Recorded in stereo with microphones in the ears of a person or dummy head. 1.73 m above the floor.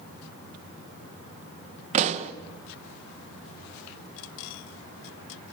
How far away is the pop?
About 1.4 m.